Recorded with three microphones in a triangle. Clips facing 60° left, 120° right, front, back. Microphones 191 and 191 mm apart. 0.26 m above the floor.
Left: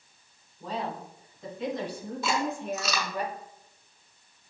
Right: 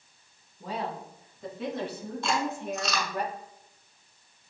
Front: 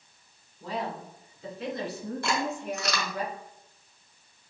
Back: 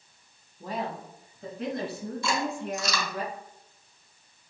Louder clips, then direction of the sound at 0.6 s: Even, even; 165° left.